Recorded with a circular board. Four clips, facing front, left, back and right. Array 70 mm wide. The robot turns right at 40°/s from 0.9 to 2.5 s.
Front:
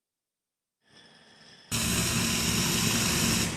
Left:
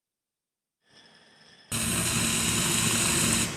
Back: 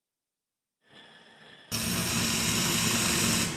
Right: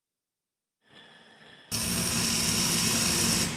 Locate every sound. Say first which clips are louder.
1.7 s frying: left 2 dB, front 1 dB; 65° left, 0.7 m; by 3.5 s 95° left, 0.7 m